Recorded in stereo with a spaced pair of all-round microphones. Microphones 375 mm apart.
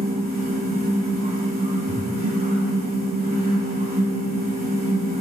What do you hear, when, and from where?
0.0 s a fan: 25° right (ahead or behind), 3.5 m
1.9 s breathing: 40° right (ahead or behind), 1.2 m